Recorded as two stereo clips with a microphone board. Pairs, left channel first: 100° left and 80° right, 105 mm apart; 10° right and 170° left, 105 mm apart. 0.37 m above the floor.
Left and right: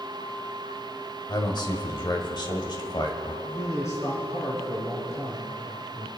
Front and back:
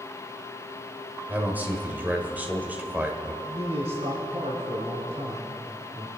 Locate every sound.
1.3 s a man speaking: 100° left, 1.8 m
3.4 s a man speaking: 160° left, 3 m